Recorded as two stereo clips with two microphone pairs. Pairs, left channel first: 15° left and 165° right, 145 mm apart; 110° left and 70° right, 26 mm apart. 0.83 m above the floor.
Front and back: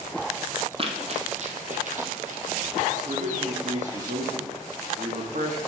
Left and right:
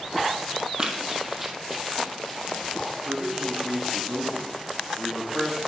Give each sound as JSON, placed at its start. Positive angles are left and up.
{"t": 0.8, "sound": "running footsteps", "azimuth_deg": -130, "distance_m": 1.3}
{"t": 3.0, "sound": "a man speaking", "azimuth_deg": -150, "distance_m": 1.7}